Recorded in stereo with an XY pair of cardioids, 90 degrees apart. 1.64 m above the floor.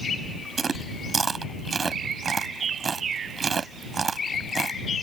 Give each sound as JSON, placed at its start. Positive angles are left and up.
{"t": 0.6, "sound": "chewing", "azimuth_deg": -40}